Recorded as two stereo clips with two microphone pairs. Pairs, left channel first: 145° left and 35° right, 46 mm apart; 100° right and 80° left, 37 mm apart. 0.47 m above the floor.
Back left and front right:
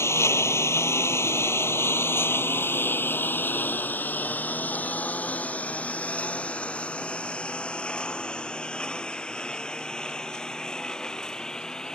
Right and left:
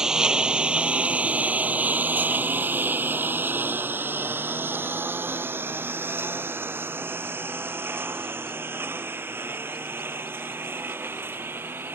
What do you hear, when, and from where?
0.0 s a lawn mower: 150° left; by 12.0 s 70° left